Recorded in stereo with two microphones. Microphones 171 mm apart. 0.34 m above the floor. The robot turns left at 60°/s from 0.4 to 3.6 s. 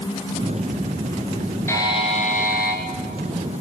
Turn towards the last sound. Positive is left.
turn(degrees=50)